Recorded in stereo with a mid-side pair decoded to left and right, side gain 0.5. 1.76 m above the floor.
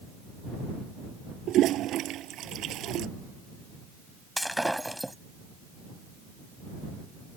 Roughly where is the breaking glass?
Ahead.